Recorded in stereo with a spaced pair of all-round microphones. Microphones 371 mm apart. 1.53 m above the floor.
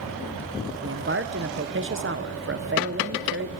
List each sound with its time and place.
0.8 s a man speaking: 35° right (ahead or behind), 0.7 m